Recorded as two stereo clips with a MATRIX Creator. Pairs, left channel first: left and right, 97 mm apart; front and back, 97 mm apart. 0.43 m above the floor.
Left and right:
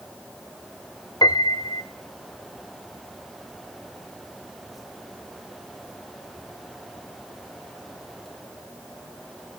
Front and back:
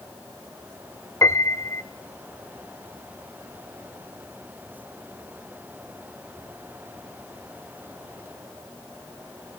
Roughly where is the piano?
Ahead left.